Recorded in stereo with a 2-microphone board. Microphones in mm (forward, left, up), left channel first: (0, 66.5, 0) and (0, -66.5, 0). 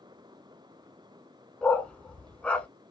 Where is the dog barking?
10° left (ahead or behind), 0.6 m.